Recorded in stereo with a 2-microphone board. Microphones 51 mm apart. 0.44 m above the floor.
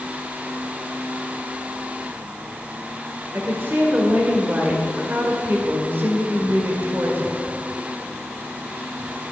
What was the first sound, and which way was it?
A woman speaking, 45° right (ahead or behind).